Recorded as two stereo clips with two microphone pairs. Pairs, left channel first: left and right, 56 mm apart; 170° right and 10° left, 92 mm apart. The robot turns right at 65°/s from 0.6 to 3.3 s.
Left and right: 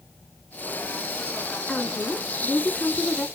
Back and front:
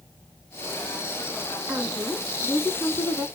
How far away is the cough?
I don't hear a cough.